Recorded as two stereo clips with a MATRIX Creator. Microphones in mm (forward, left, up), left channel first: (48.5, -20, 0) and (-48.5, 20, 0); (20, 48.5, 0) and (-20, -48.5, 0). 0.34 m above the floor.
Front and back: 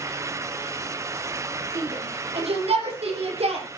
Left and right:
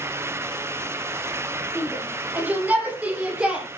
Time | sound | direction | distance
1.8 | a shout | straight behind | 9.5 m